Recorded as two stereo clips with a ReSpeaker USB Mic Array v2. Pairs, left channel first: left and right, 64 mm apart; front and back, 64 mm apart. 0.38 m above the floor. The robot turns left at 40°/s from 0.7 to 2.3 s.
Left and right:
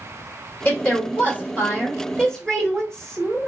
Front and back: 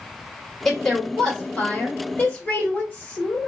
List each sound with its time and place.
0.7 s a woman speaking: 85° left, 1.3 m; by 3.5 s 20° left, 1.3 m